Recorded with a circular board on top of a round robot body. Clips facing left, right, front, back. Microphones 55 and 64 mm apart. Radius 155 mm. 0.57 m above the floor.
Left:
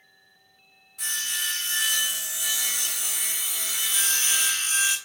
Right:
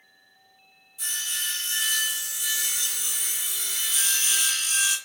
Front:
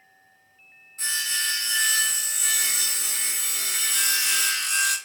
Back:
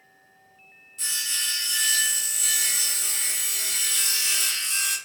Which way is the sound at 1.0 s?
55° left.